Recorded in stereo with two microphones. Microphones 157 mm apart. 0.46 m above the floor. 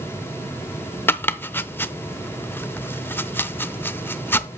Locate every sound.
1.1 s chopping: 15° left (ahead or behind), 0.6 m